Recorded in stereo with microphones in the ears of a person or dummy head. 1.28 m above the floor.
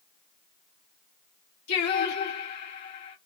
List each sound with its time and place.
1.7 s singing: 55° left (ahead or behind), 1.3 m